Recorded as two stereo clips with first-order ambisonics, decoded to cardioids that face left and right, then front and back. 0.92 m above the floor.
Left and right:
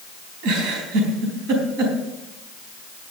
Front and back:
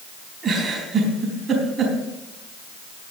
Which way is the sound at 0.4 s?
105° right.